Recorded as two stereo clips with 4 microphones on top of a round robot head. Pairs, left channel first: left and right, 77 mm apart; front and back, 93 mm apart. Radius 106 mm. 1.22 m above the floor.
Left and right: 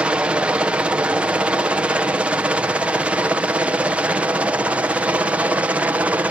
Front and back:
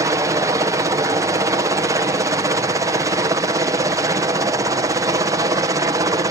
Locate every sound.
0.0 s a helicopter: 160° right; by 6.3 s 155° right